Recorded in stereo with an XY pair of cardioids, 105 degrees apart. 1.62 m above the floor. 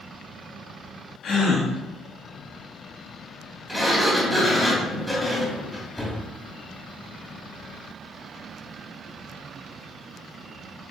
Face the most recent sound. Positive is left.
turn(degrees=0)